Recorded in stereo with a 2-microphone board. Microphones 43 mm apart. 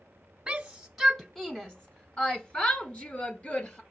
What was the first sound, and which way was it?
A shout, 15° right (ahead or behind).